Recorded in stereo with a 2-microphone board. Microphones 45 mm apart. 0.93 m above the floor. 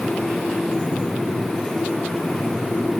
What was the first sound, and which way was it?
Only background noise.